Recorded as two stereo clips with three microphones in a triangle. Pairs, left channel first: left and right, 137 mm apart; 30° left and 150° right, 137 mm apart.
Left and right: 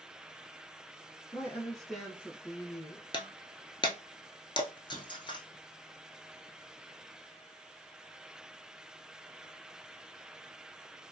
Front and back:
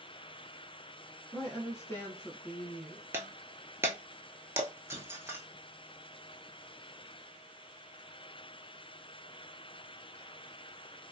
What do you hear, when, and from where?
1.3 s a woman speaking: 55° left, 1.1 m; by 3.0 s 55° right, 1.3 m
3.1 s breaking glass: 140° left, 0.6 m